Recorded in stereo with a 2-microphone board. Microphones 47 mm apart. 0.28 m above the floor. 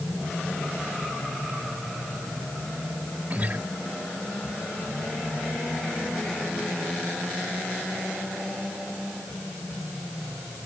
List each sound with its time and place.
3.3 s a guitar: 35° right (ahead or behind)